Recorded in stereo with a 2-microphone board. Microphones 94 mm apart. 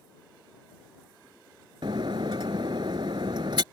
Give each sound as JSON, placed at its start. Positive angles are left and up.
{"t": 1.8, "sound": "breaking glass", "side_deg": -65}